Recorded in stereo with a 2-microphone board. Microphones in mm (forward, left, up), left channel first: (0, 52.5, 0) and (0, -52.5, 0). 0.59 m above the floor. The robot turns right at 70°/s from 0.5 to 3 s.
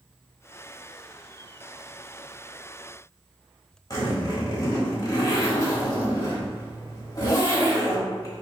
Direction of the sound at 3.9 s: 35° left (ahead or behind).